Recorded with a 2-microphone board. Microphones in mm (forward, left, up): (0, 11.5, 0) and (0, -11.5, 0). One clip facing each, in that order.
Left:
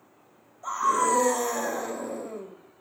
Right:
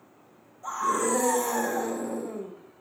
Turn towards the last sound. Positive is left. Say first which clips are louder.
# left 3 dB
turn(degrees=25)  # may be behind; listen again after turning